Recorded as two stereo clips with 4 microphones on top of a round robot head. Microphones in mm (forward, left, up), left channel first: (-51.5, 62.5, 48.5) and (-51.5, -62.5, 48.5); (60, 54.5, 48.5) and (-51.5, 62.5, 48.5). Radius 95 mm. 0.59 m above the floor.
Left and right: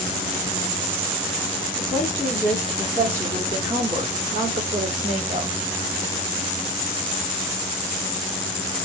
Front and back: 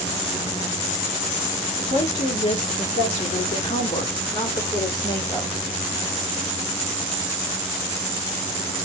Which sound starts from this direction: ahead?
A woman speaking, at 1.8 s.